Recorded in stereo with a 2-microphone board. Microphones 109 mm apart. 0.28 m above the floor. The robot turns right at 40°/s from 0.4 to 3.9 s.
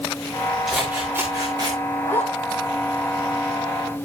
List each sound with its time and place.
0.7 s scissors: 175° right, 8 m; by 1.8 s 135° right, 8 m
2.0 s a zipper: 20° left (ahead or behind), 6 m; by 2.6 s 5° right (ahead or behind), 6 m